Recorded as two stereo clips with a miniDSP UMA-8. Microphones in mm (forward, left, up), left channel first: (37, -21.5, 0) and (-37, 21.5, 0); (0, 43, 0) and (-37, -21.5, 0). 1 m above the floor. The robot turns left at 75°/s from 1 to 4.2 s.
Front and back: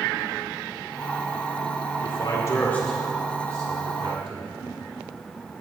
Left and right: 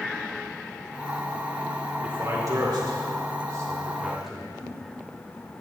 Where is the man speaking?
50° right, 2.5 m; by 4.5 s 150° left, 2.5 m.